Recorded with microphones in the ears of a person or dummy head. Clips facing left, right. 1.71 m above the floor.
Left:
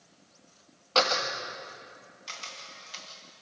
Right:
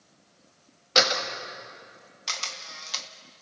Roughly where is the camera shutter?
Right.